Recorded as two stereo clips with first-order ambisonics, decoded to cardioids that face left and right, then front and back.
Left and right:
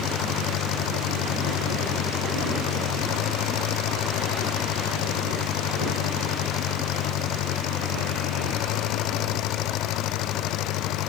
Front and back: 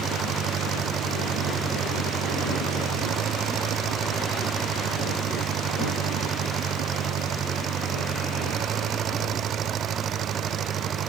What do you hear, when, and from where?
0.0 s an engine running: 125° left